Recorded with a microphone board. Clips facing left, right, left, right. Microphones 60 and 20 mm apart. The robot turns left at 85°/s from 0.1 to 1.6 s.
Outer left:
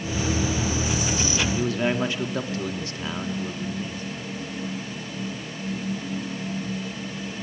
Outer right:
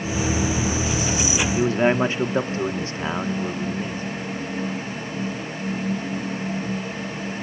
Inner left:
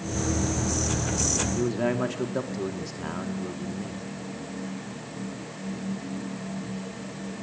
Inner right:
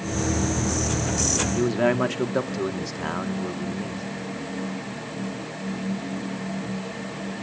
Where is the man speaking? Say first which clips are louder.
Outer right 8 dB, inner right 4 dB; 35° right (ahead or behind), 1.4 m; by 4.0 s 30° right (ahead or behind), 1.4 m.